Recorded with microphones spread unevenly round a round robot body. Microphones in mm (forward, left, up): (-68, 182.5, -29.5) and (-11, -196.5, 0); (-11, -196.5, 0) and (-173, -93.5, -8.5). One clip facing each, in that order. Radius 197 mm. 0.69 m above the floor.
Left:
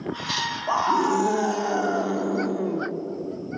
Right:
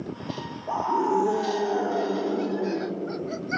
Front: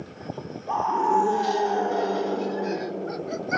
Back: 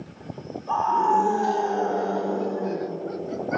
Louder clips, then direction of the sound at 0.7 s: Left 1 dB, back 1 dB; 50° left.